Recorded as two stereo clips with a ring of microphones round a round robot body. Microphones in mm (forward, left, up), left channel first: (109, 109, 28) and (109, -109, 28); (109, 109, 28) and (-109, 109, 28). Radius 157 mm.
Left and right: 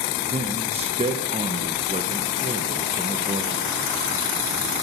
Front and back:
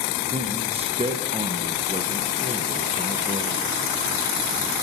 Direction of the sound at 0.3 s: 135° right.